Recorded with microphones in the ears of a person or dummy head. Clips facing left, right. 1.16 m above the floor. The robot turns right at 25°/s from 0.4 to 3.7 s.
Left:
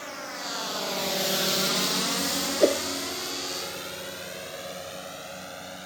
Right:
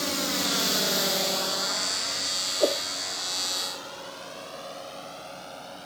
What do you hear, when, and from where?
0.0 s a drone: 60° right (ahead or behind); by 5.9 s 25° left (ahead or behind)
2.6 s a whoosh: 25° left (ahead or behind); by 2.8 s 30° left (ahead or behind)